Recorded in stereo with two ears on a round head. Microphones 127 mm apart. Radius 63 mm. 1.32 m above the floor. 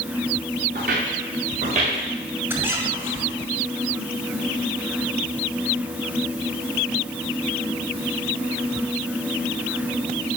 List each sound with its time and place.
0.8 s footsteps: 65° right (ahead or behind), 5.5 m; by 2.0 s 50° right (ahead or behind), 4 m
2.5 s a squeak: 15° right (ahead or behind), 2 m